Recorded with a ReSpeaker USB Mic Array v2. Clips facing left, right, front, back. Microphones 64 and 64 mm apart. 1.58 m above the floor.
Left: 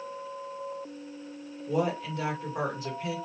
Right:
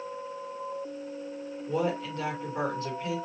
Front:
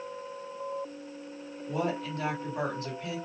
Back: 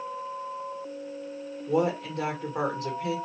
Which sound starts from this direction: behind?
A woman speaking, at 1.7 s.